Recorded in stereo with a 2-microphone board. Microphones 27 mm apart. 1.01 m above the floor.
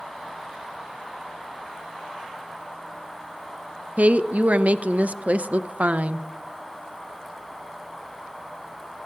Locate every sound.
4.0 s a woman speaking: 70° right (ahead or behind), 0.6 m